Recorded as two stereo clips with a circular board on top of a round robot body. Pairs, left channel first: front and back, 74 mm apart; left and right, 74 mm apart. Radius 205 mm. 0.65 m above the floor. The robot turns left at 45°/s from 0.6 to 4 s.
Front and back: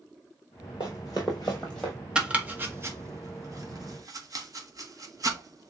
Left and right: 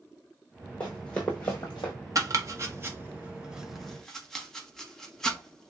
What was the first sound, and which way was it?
Running footsteps, 15° left.